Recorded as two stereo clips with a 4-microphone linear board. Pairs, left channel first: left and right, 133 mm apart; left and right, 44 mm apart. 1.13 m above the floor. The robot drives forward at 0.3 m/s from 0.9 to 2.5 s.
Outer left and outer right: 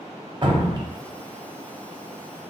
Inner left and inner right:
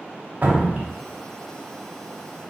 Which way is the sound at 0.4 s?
35° right (ahead or behind).